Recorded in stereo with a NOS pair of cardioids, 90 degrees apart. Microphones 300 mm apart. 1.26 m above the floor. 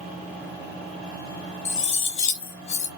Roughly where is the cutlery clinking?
Left.